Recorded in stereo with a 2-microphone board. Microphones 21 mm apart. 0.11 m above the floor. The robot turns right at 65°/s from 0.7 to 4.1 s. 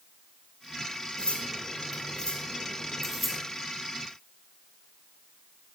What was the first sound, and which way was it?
Cutlery clinking, 50° left (ahead or behind).